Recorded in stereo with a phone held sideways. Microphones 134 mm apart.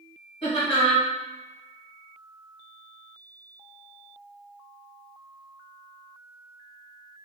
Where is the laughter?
35° left (ahead or behind), 1.6 m.